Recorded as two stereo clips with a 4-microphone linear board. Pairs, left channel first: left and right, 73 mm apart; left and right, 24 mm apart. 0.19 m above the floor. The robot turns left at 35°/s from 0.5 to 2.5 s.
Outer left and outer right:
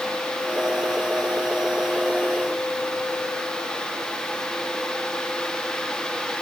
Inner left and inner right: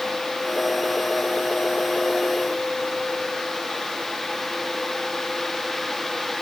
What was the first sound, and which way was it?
Only background noise.